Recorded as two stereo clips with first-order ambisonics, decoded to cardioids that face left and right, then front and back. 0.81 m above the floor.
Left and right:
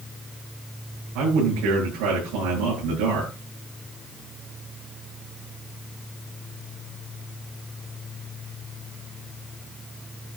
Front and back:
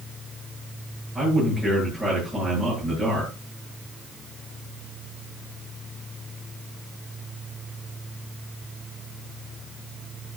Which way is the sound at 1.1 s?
95° right.